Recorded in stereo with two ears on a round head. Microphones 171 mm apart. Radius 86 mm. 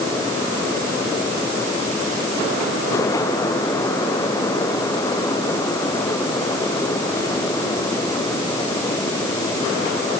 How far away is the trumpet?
I don't hear a trumpet.